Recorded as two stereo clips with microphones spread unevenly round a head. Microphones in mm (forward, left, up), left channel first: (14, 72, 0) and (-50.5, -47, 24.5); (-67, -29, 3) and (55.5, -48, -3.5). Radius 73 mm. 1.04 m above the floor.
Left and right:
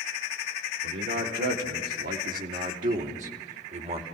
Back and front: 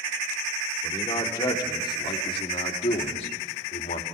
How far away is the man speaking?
About 3.5 m.